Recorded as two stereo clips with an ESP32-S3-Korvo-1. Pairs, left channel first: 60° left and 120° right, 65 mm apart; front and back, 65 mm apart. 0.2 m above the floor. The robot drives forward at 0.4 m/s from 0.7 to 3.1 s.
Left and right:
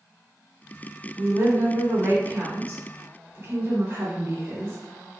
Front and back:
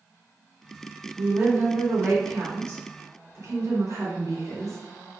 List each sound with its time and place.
1.2 s a woman speaking: 135° right, 1.3 m; by 4.8 s 160° right, 1.8 m